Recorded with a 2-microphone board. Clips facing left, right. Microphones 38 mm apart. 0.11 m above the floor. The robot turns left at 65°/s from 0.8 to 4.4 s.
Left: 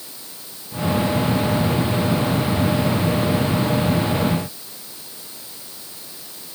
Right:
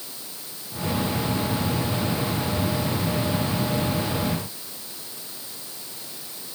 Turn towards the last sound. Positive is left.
No sound to turn to.